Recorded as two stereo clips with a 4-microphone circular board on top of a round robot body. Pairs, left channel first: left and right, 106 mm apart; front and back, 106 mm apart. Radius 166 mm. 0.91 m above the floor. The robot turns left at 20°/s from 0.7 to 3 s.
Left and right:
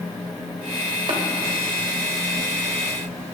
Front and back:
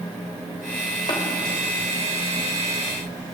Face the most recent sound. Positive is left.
turn(degrees=-90)